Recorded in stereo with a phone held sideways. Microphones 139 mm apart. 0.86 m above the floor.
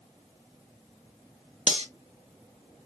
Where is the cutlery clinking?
50° right (ahead or behind), 0.7 m.